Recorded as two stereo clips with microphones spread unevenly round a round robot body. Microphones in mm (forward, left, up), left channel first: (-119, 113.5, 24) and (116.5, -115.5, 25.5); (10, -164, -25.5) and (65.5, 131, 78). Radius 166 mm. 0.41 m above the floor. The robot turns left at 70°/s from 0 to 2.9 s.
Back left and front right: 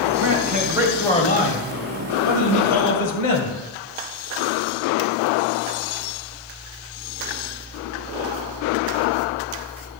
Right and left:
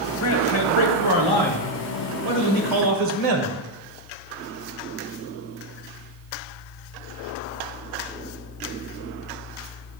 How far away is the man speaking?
About 1.8 m.